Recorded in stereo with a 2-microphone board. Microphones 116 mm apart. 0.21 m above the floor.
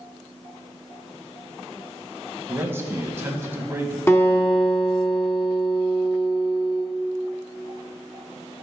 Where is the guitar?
20° left (ahead or behind), 1.5 m.